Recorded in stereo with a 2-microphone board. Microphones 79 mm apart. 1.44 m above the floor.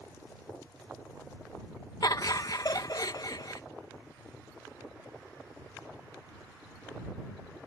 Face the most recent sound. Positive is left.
turn(degrees=55)  # may be behind; listen again after turning